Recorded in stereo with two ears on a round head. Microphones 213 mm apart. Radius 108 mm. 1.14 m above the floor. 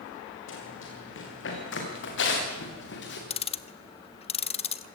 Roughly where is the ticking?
Left.